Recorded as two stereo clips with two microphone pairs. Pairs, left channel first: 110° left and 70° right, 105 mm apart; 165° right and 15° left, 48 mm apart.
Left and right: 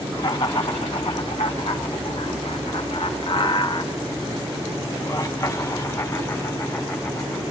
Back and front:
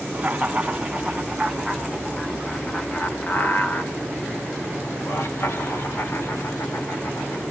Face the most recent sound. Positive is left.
turn(degrees=180)